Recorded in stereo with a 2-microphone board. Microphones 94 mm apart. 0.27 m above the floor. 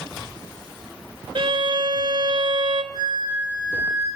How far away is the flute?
About 5 m.